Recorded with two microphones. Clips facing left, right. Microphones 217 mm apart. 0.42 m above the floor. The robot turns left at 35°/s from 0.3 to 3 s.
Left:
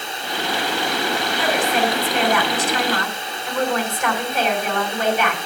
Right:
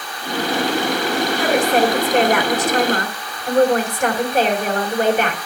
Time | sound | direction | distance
1.4 | a woman speaking | 60° right | 2.5 m